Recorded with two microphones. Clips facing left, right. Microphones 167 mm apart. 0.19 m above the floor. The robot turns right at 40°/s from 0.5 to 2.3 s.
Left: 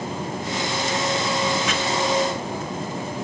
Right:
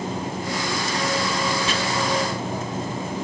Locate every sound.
1.7 s chopping: 30° right (ahead or behind), 1.0 m